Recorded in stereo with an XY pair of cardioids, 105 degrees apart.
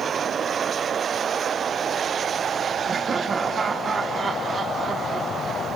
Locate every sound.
2.9 s laughter: 40° right, 1.4 m